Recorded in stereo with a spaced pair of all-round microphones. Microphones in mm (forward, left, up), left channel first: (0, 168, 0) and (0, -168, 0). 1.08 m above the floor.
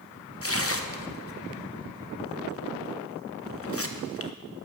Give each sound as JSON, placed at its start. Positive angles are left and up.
{"t": 0.4, "sound": "tearing paper", "side_deg": 40, "distance_m": 1.1}